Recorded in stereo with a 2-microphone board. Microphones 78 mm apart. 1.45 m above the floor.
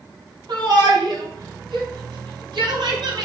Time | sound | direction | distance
0.5 | a shout | 75° right (ahead or behind) | 3.5 m